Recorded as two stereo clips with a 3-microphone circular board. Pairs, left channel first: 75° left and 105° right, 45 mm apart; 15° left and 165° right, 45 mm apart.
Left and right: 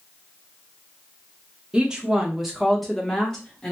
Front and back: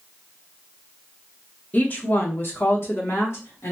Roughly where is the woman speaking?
Ahead right.